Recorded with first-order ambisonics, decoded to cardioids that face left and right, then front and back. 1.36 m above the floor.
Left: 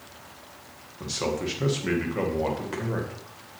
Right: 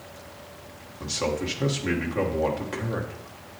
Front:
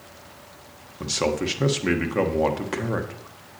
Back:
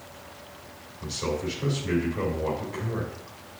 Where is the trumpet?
No trumpet in this recording.